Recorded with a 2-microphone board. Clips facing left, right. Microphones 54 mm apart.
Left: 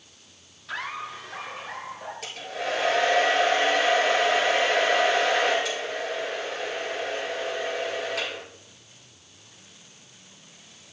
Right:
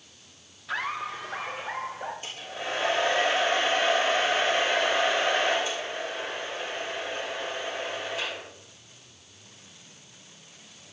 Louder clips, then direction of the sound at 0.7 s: Right 2 dB; 5° right (ahead or behind).